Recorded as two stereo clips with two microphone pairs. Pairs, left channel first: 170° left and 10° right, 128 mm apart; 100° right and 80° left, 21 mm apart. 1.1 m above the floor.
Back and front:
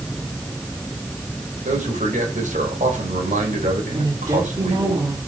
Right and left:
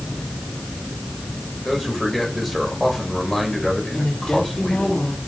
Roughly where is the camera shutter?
No camera shutter in this recording.